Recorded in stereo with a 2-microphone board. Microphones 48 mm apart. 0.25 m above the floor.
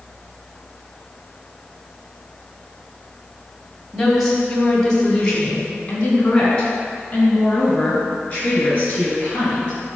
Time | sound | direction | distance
3.9 | a woman speaking | 5° left (ahead or behind) | 1.8 m